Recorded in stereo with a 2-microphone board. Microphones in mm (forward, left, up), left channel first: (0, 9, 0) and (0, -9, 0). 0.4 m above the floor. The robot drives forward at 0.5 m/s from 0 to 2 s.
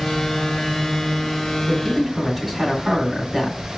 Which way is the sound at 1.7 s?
10° left (ahead or behind).